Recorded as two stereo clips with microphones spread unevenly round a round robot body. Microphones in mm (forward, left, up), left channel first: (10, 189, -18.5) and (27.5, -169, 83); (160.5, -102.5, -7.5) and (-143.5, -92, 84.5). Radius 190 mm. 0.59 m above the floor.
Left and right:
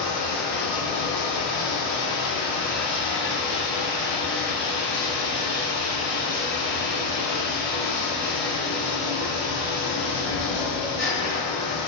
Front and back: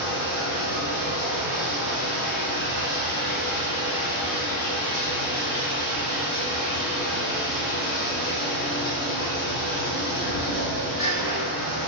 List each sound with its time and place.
0.0 s running water: 55° left, 1.2 m